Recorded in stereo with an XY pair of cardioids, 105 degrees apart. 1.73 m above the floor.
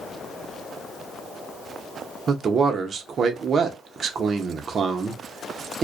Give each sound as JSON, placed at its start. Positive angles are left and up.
{"t": 2.3, "sound": "a man speaking", "azimuth_deg": -45, "distance_m": 0.7}